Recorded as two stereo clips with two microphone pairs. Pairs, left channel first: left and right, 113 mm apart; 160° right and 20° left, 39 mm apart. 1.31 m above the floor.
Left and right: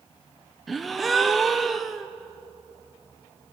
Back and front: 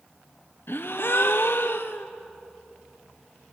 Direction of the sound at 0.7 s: 175° right.